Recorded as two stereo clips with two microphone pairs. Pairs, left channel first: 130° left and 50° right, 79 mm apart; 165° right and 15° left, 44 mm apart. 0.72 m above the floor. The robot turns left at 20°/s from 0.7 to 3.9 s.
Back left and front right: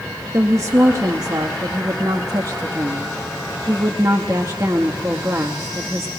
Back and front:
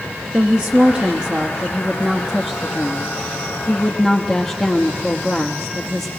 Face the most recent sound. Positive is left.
turn(degrees=-85)